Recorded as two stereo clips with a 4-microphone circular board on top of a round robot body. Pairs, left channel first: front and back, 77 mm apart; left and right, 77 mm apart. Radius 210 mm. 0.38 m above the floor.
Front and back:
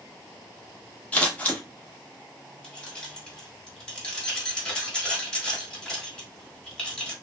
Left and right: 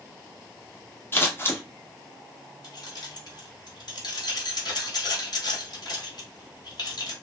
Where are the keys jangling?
80° left, 1.4 m.